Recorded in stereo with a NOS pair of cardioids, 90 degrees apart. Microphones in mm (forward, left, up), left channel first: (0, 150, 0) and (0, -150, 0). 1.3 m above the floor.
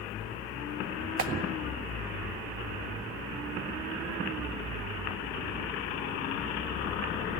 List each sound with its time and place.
1.2 s a clap: 50° right, 1.7 m